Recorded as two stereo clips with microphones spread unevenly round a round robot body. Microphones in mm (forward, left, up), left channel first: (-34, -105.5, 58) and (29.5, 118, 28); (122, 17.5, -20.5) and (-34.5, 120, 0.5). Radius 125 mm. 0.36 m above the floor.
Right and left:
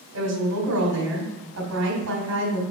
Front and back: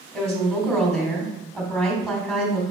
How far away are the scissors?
No scissors in this recording.